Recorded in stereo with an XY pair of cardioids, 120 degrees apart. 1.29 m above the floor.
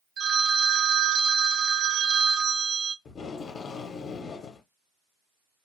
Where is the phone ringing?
55° right, 0.5 m.